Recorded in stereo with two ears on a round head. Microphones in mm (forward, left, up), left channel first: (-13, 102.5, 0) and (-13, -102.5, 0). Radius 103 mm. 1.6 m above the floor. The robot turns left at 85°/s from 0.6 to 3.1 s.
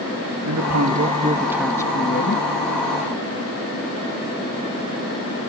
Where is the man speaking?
90° right; by 2.5 s 110° left.